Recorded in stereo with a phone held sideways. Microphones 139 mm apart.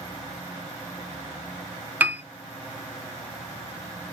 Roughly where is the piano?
Centre.